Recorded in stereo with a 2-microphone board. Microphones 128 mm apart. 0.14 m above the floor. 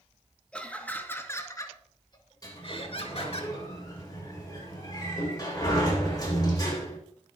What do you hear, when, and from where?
0.5 s laughter: 10° left (ahead or behind), 3 m; by 3.4 s 55° left (ahead or behind), 3 m
2.4 s a sliding door: 30° left (ahead or behind), 7.5 m